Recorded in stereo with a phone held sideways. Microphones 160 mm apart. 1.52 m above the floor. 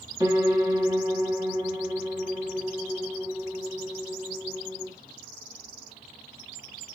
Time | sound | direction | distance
0.2 | a piano | 20° right (ahead or behind) | 1.4 m